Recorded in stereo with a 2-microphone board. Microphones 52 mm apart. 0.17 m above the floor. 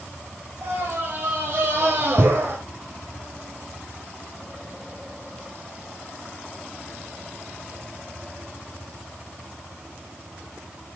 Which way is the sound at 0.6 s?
35° right (ahead or behind).